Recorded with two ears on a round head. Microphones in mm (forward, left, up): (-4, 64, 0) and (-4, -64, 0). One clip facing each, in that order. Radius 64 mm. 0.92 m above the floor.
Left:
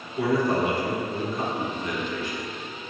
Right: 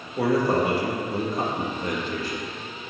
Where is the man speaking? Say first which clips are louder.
Right 1 dB; 35° right (ahead or behind), 1.5 m.